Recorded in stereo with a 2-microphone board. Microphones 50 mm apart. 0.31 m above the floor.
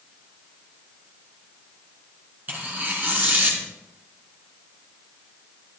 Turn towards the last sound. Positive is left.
turn(degrees=-35)  # may be behind; listen again after turning